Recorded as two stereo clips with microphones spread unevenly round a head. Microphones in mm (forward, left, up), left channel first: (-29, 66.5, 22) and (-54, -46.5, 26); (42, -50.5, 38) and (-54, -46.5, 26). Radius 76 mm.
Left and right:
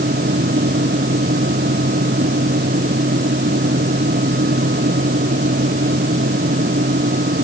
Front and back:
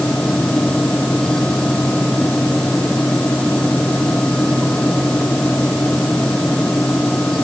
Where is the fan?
85° right.